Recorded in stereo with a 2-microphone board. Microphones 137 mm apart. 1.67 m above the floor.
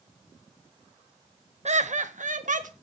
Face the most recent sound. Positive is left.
turn(degrees=-75)  # may be behind; listen again after turning